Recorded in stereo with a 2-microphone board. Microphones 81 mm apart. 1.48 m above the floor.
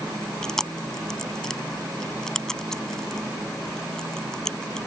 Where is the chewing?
5° left (ahead or behind).